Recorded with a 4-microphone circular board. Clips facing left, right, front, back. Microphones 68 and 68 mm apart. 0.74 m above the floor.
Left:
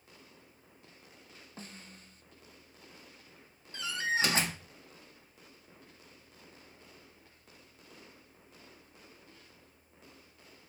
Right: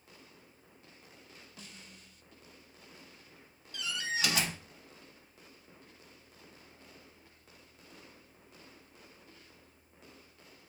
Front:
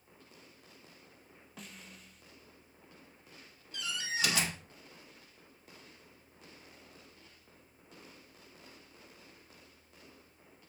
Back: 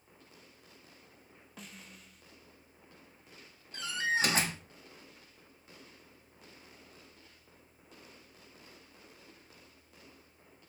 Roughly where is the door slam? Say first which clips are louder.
Left 4 dB, back 6 dB; behind left.